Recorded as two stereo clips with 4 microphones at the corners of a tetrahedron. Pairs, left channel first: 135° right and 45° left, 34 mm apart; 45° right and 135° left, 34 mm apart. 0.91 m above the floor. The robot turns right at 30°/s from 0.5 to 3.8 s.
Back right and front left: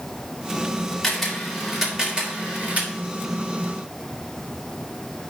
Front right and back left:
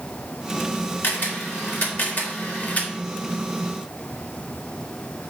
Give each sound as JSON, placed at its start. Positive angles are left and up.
{"t": 1.0, "sound": "a camera shutter", "azimuth_deg": -55, "distance_m": 1.9}